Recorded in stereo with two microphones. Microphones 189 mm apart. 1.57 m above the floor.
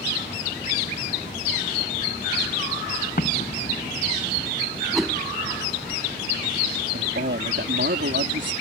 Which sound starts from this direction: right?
A man speaking, at 6.9 s.